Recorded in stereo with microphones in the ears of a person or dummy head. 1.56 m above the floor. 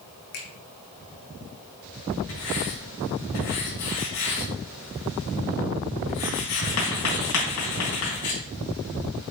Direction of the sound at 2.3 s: 65° left (ahead or behind).